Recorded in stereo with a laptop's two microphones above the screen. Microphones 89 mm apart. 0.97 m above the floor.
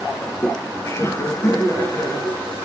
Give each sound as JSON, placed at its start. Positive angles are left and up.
{"t": 0.2, "sound": "laughter", "side_deg": 20, "distance_m": 0.6}